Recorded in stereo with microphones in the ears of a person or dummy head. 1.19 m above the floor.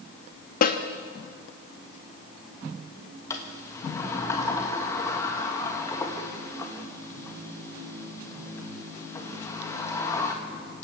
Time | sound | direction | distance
0.6 | a snare drum | 45° left (ahead or behind) | 1.0 m
3.3 | a sliding door | 15° left (ahead or behind) | 1.4 m